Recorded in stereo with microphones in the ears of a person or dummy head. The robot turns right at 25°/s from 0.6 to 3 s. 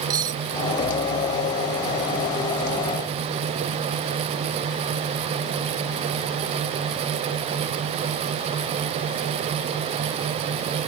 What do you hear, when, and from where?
0.1 s cutlery clinking: 30° right (ahead or behind)